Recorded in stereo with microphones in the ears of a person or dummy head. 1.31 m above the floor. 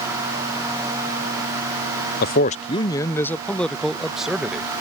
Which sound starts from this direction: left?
A man speaking, at 2.2 s.